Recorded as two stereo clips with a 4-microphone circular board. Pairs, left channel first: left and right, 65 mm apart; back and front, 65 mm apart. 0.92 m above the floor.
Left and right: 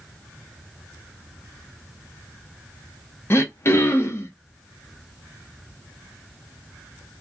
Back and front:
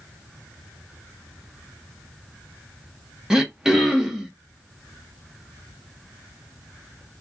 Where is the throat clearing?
80° left, 0.7 m.